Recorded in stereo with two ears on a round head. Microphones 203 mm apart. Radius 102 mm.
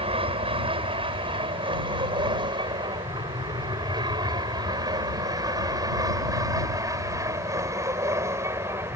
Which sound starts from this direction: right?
An aircraft, at 0.0 s.